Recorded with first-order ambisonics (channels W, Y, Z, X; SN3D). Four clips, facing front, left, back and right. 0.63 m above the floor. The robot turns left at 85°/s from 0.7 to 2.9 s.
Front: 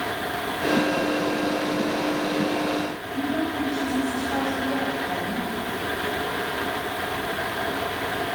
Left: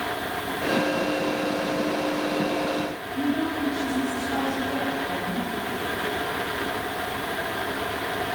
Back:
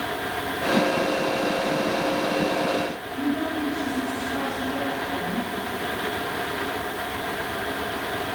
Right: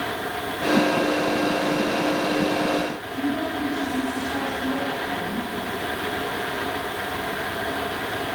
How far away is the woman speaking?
About 4.5 m.